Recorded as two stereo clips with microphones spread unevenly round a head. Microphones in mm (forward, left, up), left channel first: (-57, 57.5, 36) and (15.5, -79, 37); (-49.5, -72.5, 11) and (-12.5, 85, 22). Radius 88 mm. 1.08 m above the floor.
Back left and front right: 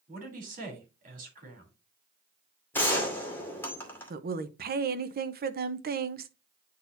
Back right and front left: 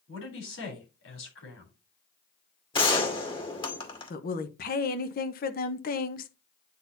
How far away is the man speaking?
About 3.5 m.